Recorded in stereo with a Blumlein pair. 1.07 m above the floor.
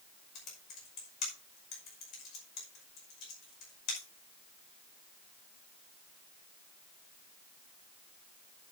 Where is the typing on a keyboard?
35° left, 5.5 m.